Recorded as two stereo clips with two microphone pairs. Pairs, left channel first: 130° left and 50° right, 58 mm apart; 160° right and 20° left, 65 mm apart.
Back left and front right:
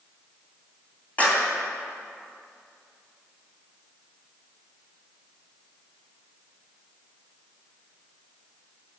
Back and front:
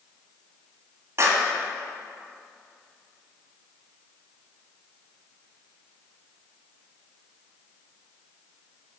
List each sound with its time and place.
1.2 s a clap: 65° left, 2 m